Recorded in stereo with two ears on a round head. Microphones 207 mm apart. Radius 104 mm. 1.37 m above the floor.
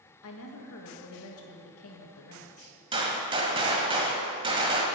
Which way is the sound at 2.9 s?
25° right (ahead or behind).